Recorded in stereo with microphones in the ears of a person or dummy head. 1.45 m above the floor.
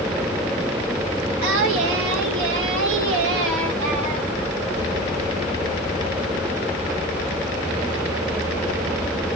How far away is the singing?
About 1.6 m.